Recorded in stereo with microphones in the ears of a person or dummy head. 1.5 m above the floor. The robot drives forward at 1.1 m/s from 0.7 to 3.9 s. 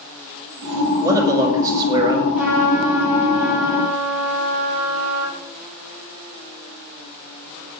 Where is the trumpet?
5° right (ahead or behind), 6.5 m.